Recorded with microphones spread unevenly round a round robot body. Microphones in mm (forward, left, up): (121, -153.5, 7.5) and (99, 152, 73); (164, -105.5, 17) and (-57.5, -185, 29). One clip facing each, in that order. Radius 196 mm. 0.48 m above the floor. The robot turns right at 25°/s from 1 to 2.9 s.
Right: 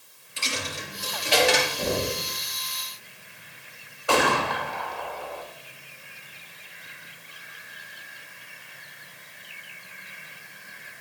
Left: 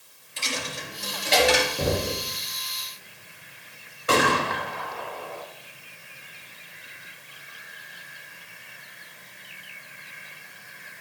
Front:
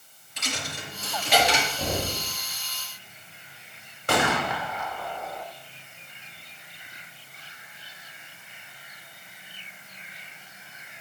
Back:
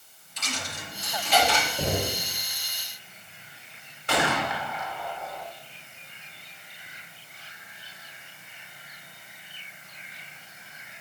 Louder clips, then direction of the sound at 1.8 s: Left 1 dB, back 1 dB; 135° left.